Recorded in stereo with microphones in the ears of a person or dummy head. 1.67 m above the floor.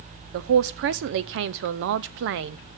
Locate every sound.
0.3 s a man speaking: 55° right (ahead or behind), 0.5 m